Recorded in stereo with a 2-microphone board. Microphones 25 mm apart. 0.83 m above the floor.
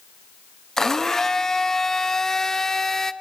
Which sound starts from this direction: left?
A blender, at 0.8 s.